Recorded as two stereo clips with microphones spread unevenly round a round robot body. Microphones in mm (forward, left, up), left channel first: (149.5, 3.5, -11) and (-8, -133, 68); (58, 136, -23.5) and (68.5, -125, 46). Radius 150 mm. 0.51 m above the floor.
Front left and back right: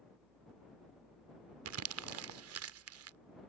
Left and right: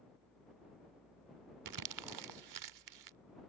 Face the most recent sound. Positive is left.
turn(degrees=-120)